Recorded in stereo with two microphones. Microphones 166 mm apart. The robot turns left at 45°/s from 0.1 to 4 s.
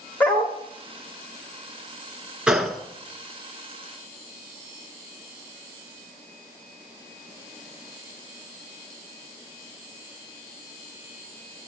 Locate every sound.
0.2 s a dog barking: 10° left (ahead or behind), 1.8 m; by 0.6 s 25° left (ahead or behind), 1.8 m
2.5 s a gunshot: 5° right (ahead or behind), 0.8 m; by 2.8 s 5° left (ahead or behind), 0.8 m